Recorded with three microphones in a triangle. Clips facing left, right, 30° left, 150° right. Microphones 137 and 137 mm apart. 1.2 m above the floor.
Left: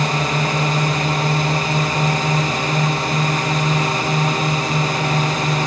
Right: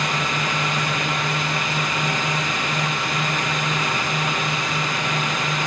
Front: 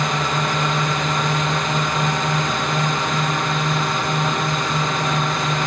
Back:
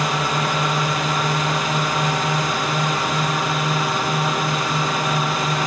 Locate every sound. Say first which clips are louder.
0.0 s a drone: left 5 dB, even; 125° left